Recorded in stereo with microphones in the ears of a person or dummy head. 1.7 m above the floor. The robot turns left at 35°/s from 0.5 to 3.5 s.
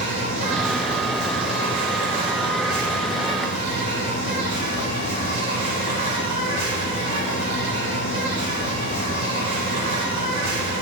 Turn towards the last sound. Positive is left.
turn(degrees=-145)